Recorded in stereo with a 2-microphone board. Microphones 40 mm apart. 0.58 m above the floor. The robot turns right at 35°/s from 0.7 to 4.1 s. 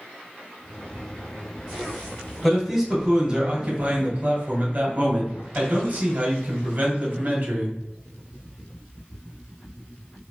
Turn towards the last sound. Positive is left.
turn(degrees=-130)